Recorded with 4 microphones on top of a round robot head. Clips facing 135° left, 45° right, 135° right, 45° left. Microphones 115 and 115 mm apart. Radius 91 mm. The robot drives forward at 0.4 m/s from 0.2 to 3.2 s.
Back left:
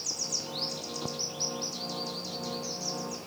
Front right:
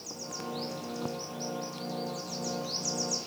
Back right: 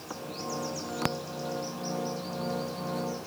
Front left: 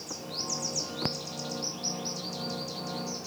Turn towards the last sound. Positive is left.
No sound to turn to.